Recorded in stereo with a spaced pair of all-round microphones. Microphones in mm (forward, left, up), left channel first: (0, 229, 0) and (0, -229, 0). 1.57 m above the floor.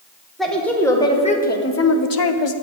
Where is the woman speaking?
Centre (ahead or behind), 1.5 m; by 2.5 s 75° left (ahead or behind), 0.6 m.